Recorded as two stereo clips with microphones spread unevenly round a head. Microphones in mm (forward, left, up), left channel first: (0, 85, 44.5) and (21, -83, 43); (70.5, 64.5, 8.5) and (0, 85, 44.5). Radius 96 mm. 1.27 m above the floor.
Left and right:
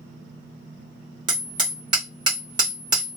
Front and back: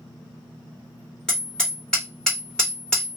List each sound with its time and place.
1.3 s hammering: 140° right, 1.0 m